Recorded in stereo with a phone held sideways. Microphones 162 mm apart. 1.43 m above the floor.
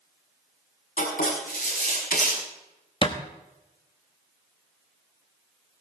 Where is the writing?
55° left (ahead or behind), 6.5 m.